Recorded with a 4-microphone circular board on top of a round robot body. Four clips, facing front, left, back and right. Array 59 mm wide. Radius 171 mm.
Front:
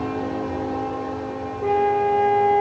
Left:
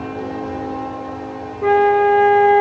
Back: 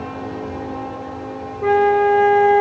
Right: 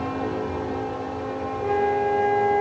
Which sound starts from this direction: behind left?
A flute, at 1.6 s.